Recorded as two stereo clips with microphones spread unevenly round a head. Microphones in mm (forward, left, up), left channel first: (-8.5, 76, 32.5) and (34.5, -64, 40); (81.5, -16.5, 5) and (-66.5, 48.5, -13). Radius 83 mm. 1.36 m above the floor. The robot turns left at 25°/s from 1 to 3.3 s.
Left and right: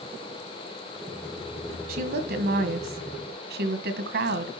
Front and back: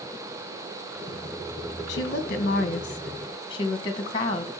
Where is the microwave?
I don't hear a microwave.